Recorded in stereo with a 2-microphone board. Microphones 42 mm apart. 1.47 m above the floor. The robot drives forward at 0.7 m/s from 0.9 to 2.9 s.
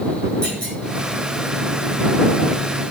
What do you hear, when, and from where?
0.4 s a clunk: 25° left (ahead or behind), 4 m